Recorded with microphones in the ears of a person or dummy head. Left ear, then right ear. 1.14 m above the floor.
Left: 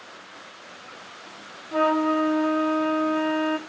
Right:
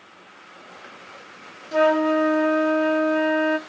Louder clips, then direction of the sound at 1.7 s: Right 3 dB; 20° right (ahead or behind).